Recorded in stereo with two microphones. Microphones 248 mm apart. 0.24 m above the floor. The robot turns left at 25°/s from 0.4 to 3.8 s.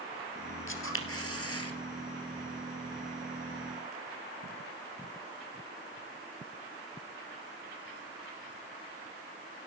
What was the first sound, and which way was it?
A camera shutter, 60° left (ahead or behind).